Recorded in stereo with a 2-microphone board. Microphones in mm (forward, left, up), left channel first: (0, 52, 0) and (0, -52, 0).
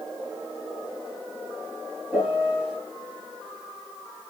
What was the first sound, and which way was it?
A piano, 15° right (ahead or behind).